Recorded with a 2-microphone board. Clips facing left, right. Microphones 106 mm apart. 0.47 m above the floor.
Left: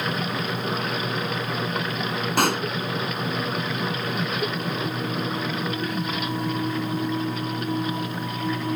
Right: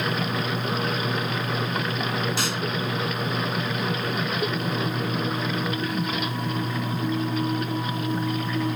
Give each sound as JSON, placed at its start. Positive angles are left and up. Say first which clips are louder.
{"t": 2.4, "sound": "a pop", "louder": "left 6 dB", "side_deg": 55}